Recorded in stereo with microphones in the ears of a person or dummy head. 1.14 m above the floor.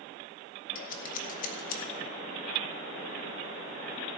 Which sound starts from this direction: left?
Scissors, at 0.8 s.